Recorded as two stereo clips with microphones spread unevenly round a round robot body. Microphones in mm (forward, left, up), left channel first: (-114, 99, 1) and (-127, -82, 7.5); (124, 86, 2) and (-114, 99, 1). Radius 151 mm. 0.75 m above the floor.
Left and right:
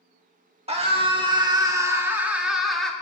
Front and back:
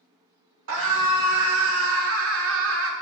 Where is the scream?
145° right, 2 m; by 2.9 s 170° left, 1.9 m.